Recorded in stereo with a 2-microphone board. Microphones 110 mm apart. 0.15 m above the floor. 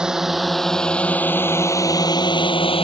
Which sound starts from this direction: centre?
A drone, at 0.0 s.